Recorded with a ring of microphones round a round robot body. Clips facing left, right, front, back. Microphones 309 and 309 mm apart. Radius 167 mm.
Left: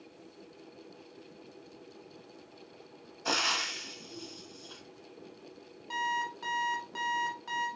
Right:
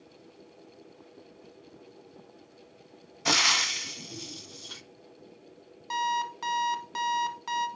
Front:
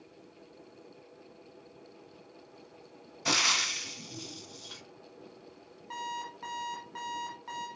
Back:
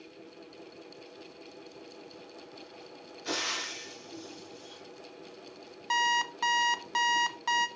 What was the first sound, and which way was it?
Frying, 35° right.